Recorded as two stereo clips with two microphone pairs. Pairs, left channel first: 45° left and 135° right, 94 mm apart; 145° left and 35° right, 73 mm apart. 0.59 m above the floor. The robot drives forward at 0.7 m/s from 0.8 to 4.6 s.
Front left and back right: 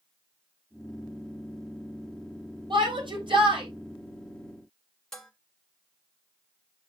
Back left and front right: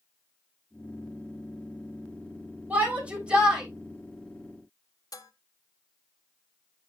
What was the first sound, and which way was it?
A shout, 105° right.